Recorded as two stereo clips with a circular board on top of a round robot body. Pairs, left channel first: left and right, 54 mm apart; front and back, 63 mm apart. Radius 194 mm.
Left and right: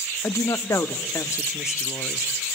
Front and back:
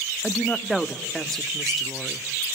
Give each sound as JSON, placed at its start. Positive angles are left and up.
{"t": 0.2, "sound": "a woman speaking", "azimuth_deg": 85, "distance_m": 1.4}